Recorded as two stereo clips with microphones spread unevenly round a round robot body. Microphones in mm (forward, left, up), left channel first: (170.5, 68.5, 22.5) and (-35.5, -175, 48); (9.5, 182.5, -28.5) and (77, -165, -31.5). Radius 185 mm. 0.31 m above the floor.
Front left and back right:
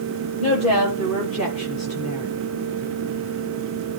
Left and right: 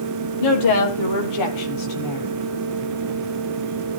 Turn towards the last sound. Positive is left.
turn(degrees=120)